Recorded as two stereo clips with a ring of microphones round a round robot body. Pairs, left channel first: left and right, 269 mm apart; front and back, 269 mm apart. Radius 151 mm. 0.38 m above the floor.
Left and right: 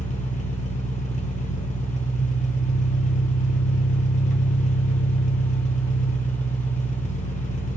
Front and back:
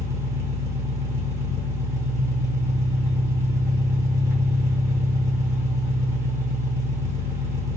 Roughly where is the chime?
I don't hear a chime.